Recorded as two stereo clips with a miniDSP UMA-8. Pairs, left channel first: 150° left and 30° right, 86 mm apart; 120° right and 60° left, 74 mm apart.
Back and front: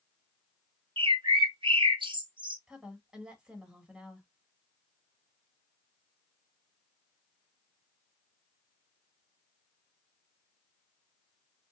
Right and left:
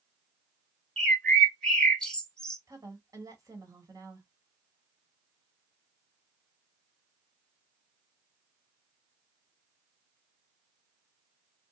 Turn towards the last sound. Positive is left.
turn(degrees=50)